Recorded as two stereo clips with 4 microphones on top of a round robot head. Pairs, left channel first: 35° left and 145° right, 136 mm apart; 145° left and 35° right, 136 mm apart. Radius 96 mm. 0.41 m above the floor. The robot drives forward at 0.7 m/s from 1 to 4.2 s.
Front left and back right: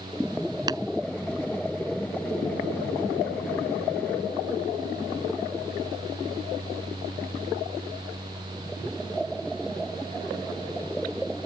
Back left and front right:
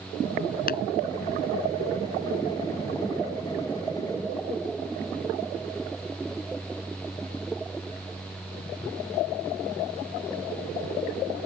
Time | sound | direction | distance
0.7 | tapping | 155° left | ?